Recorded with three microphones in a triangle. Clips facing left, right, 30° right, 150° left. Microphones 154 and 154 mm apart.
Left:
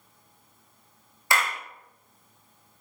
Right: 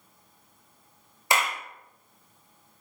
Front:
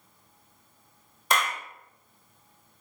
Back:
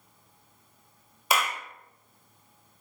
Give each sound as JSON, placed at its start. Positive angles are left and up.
{"t": 1.3, "sound": "a clap", "azimuth_deg": -135, "distance_m": 0.8}